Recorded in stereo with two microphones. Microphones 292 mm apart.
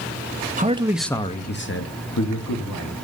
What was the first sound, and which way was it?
A man speaking, 30° right (ahead or behind).